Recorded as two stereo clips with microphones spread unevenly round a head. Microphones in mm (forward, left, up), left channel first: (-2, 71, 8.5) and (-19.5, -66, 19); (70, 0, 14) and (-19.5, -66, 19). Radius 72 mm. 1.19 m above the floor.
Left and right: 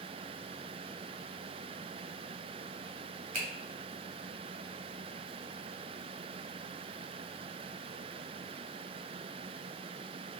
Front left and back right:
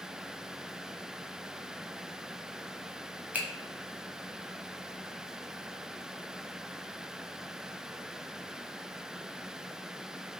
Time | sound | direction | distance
3.3 | a finger snap | 65° right | 1.2 m